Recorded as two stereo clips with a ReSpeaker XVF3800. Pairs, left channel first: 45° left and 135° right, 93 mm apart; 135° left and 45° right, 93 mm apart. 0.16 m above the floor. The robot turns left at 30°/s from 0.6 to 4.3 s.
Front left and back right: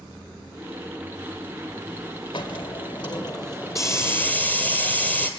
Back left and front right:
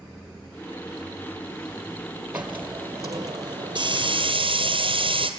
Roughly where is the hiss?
Ahead left.